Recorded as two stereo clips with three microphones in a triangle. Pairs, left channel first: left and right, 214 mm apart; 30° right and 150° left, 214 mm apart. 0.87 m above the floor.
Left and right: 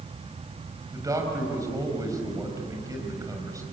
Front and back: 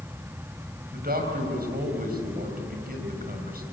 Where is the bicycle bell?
I don't hear a bicycle bell.